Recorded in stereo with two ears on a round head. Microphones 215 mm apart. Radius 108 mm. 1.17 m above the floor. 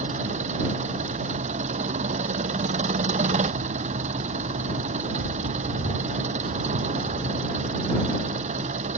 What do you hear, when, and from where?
0.0 s an engine running: 30° right (ahead or behind)